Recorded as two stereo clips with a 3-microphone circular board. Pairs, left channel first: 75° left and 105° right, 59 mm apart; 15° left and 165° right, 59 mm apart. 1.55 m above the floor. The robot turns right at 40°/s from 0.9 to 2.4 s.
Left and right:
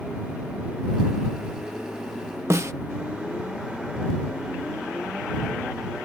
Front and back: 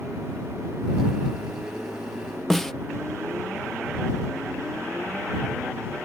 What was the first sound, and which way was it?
A snare drum, 70° right.